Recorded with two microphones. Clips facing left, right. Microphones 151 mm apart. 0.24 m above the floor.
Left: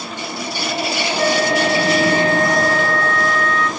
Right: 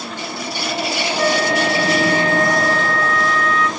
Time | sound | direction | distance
1.2 | a flute | 35° left (ahead or behind) | 1.2 m